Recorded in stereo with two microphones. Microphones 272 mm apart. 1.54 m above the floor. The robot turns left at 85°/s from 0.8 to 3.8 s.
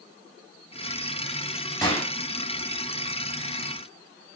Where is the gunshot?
10° left (ahead or behind), 5.5 m; by 2.1 s 40° left (ahead or behind), 5.5 m.